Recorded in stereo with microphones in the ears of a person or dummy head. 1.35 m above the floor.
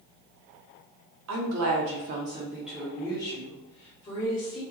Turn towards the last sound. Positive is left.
turn(degrees=35)  # may be behind; listen again after turning